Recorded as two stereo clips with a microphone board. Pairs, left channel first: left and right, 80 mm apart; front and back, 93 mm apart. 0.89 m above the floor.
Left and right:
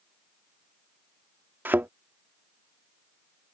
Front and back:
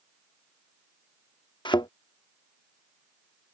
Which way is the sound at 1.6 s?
25° right.